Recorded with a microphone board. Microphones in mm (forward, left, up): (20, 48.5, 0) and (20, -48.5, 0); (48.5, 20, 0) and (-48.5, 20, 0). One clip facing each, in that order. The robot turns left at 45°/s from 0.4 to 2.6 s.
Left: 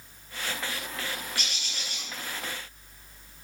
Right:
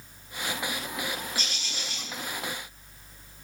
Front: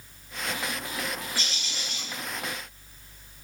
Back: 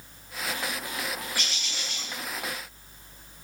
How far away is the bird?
About 5.5 m.